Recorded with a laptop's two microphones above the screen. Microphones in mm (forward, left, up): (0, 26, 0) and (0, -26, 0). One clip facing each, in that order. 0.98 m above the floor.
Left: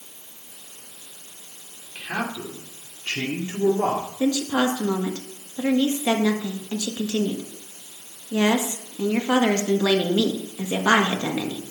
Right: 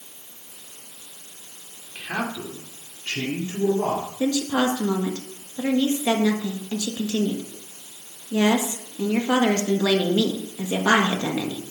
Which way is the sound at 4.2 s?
15° left (ahead or behind).